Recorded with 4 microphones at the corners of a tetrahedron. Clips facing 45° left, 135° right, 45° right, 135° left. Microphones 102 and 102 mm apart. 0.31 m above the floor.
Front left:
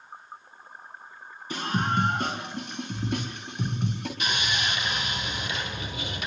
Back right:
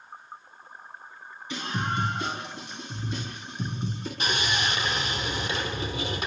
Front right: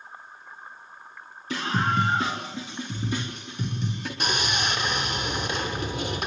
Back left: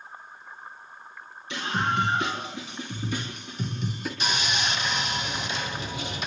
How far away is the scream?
About 3.5 m.